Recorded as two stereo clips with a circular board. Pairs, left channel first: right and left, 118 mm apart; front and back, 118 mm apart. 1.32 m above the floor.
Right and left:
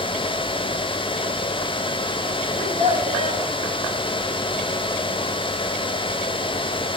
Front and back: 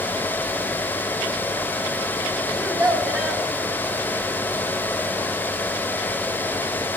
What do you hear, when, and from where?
2.6 s a child speaking: 90° left, 2.5 m